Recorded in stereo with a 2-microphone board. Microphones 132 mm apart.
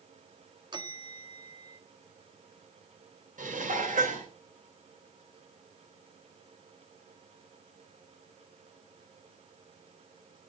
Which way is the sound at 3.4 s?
85° right.